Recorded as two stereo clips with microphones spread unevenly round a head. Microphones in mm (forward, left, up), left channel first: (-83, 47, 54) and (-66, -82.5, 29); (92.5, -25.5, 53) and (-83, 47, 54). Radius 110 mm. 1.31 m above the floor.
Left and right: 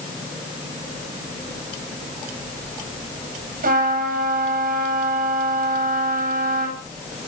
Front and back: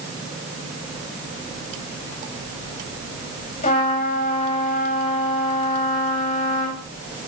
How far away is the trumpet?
About 6.5 m.